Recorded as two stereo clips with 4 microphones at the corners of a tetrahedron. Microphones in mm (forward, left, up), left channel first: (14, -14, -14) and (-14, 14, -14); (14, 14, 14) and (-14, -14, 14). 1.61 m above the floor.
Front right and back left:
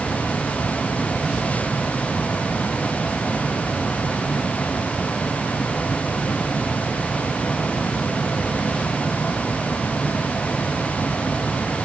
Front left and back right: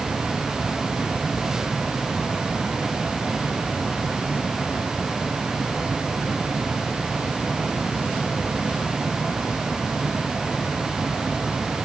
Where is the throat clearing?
I don't hear throat clearing.